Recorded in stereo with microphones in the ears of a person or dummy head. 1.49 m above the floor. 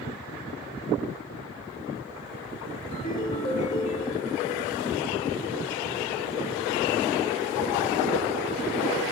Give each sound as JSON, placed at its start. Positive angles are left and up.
{"t": 2.9, "sound": "a ringtone", "side_deg": 35, "distance_m": 2.5}